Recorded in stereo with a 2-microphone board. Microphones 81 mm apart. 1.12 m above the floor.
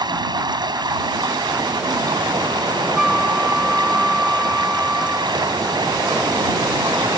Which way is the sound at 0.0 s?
65° right (ahead or behind).